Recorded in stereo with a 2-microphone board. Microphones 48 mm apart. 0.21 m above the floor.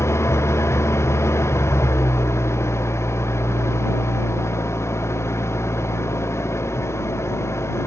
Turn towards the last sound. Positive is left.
turn(degrees=65)  # may be behind; listen again after turning